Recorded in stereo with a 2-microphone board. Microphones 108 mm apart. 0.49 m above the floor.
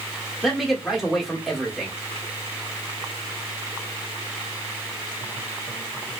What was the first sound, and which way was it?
A man speaking, centre (ahead or behind).